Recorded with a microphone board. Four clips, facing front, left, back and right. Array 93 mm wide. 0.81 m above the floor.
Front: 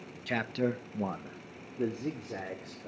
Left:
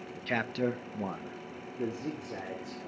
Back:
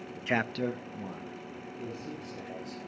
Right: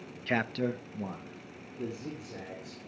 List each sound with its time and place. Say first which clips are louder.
0.3 s a man speaking: right 1 dB, back 1 dB; 160° right, 0.8 m; by 2.9 s 30° left, 3.5 m